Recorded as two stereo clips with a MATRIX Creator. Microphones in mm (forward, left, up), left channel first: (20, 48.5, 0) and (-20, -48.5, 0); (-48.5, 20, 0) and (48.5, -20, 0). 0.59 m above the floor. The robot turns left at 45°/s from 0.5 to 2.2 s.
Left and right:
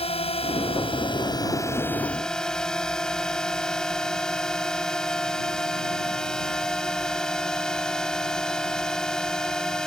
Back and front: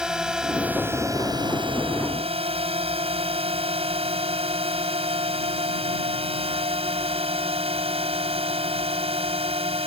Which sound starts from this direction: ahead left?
A drone, at 0.0 s.